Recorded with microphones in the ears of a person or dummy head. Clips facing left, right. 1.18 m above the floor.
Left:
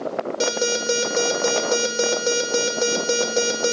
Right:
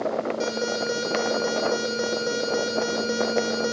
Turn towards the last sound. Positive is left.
turn(degrees=50)  # may be behind; listen again after turning